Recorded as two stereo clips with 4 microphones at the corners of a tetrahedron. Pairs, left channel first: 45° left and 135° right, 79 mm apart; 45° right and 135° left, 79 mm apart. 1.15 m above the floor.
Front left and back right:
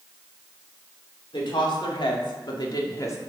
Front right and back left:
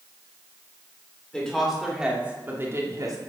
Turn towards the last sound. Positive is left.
turn(degrees=95)